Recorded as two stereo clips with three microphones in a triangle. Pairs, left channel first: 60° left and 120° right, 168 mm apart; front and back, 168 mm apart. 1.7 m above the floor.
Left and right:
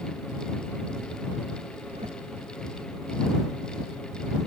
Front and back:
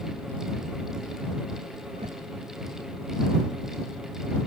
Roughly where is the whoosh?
Behind right.